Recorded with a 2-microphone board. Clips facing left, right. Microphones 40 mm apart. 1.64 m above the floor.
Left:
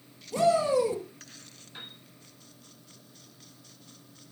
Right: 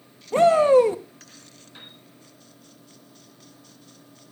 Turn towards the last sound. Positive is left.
turn(degrees=10)  # may be behind; listen again after turning